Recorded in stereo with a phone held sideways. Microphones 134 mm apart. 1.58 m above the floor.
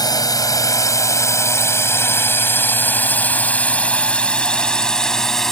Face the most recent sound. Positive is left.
turn(degrees=0)  # may be behind; listen again after turning